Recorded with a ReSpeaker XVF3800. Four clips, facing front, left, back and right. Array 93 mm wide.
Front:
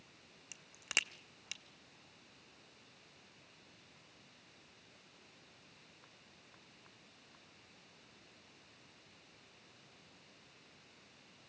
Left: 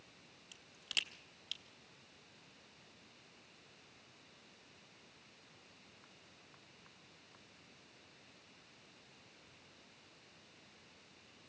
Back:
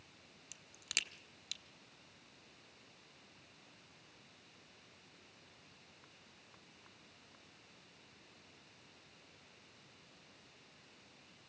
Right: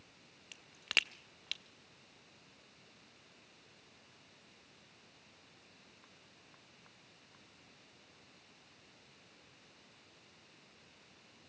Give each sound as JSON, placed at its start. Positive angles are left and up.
{"t": 0.5, "sound": "a crack", "azimuth_deg": -65, "distance_m": 0.7}